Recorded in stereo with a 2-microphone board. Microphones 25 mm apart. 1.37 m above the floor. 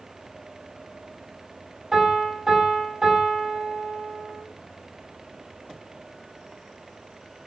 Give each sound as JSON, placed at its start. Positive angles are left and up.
{"t": 1.9, "sound": "a piano", "side_deg": -15, "distance_m": 5.5}